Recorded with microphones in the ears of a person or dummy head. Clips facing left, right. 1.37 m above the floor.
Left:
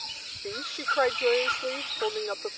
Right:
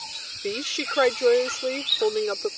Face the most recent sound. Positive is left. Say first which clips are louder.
# right 7 dB
turn(degrees=-40)  # may be behind; listen again after turning